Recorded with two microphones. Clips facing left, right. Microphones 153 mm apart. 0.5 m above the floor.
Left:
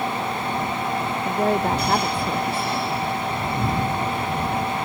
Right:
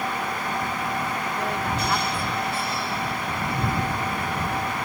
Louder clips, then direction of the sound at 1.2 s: Left 6 dB; 40° left (ahead or behind).